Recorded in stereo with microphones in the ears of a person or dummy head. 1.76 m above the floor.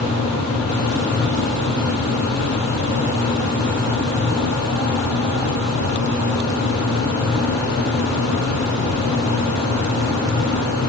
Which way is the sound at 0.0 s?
80° left.